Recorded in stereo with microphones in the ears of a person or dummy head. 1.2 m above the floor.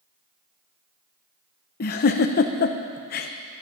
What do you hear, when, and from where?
1.8 s a giggle: 45° left (ahead or behind), 0.6 m